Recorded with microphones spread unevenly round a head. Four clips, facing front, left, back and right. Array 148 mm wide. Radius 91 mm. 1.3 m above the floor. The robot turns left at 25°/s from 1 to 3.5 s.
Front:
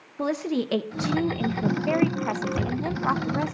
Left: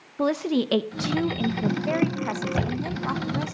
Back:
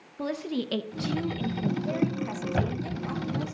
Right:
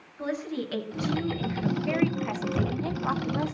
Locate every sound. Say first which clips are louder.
0.2 s a woman speaking: left 8 dB, front 5 dB; 55° left, 1.4 m; by 3.5 s 5° right, 1.4 m
2.5 s a thud: left 1 dB, front 2 dB; 160° left, 4 m; by 3.5 s 140° left, 4 m